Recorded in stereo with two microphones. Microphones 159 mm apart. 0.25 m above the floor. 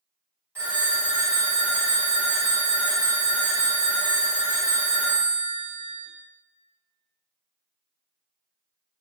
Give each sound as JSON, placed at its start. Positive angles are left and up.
{"t": 0.6, "sound": "a phone ringing", "side_deg": -15, "distance_m": 0.8}